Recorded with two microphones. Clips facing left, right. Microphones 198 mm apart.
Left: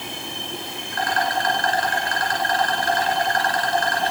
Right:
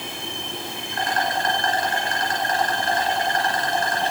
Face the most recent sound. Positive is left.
turn(degrees=-25)  # may be behind; listen again after turning